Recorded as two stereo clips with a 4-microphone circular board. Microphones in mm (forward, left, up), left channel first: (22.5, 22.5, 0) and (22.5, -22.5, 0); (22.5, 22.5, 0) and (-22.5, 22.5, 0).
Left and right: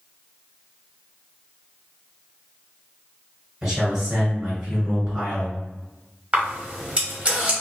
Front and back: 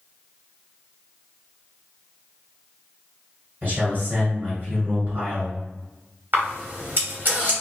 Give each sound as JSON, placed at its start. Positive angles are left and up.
{"t": 3.6, "sound": "a man speaking", "azimuth_deg": -155, "distance_m": 1.9}
{"t": 6.3, "sound": "a camera shutter", "azimuth_deg": -150, "distance_m": 1.1}